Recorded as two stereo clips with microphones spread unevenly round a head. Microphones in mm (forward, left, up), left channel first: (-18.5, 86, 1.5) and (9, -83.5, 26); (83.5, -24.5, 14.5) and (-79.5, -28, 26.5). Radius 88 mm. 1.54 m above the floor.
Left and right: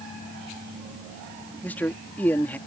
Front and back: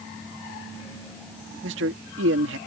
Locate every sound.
1.6 s a man speaking: straight behind